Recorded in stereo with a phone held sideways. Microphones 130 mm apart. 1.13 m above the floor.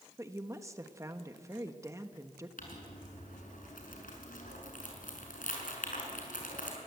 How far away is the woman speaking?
About 1.3 m.